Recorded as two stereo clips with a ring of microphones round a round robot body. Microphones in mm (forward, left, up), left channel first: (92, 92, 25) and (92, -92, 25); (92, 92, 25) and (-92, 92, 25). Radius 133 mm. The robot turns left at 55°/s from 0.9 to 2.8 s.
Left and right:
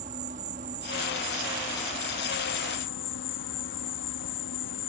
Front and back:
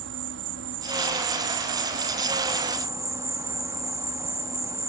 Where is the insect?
150° right; by 4.9 s 105° left.